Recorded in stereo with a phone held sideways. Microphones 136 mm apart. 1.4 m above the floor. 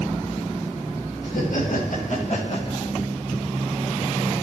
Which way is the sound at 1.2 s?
75° left (ahead or behind).